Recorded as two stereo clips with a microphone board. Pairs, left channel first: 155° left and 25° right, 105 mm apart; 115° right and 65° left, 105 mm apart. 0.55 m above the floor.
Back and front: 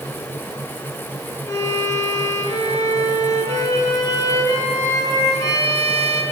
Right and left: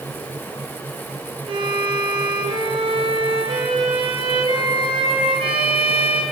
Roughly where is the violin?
Left.